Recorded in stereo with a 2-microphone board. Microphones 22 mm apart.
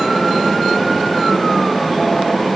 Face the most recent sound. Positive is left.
No sound to turn to.